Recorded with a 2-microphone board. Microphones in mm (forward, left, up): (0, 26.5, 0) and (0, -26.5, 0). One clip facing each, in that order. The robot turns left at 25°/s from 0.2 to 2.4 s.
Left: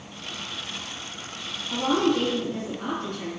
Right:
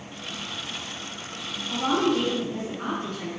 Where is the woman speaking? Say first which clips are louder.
Left 1 dB; centre (ahead or behind), 1.5 m; by 3.3 s 15° right (ahead or behind), 1.5 m.